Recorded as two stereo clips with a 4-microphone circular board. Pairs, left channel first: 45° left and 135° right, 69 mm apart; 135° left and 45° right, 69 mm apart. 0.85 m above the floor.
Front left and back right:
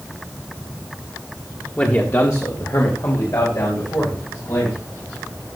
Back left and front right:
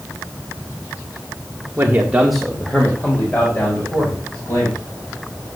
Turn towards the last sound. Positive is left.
turn(degrees=85)